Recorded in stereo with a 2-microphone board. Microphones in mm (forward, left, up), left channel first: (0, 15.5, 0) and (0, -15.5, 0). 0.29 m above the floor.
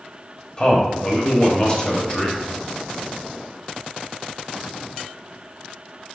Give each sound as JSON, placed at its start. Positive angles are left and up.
{"t": 0.6, "sound": "a man speaking", "side_deg": 25, "distance_m": 1.0}